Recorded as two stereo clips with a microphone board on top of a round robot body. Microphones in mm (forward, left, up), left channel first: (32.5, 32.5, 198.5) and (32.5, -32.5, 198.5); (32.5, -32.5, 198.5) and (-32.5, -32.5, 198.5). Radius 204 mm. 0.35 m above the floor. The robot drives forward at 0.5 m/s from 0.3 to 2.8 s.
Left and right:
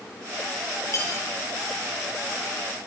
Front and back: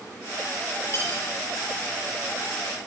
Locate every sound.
0.9 s cutlery clinking: 50° left, 7.5 m; by 1.2 s 55° left, 7.5 m